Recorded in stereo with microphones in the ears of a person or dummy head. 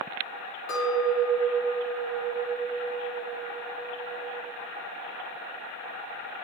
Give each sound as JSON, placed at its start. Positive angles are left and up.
{"t": 0.7, "sound": "a clink", "side_deg": 75, "distance_m": 2.0}